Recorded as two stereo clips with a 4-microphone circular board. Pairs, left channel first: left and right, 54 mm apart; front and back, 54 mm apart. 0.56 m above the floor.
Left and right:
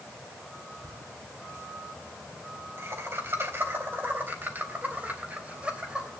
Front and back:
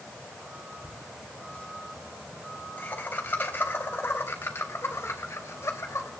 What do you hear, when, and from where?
0.8 s laughter: 70° right, 5 m; by 6.1 s 20° right, 3 m